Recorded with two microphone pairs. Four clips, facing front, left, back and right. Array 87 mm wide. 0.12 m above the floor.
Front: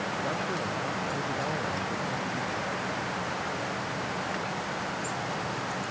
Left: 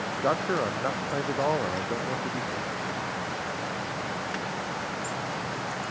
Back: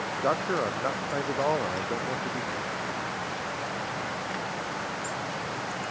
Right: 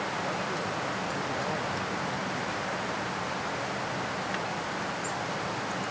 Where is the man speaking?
140° left.